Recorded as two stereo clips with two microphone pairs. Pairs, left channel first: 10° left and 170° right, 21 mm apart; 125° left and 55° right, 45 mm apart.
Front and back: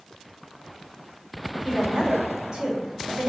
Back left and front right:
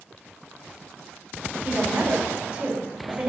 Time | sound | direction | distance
1.6 | a woman speaking | 120° right | 6 m